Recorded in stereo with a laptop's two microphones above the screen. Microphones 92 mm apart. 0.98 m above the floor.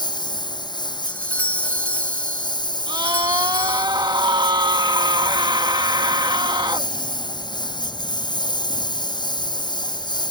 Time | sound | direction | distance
0.0 | a lawn mower | 55° left (ahead or behind) | ?
1.1 | a doorbell | 20° left (ahead or behind) | ?
2.9 | a scream | 55° right (ahead or behind) | ?